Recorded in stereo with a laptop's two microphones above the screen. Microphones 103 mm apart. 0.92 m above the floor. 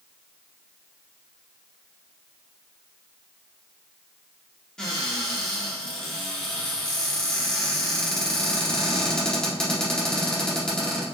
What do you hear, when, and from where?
4.8 s a cupboard door: 5° left (ahead or behind), 1.1 m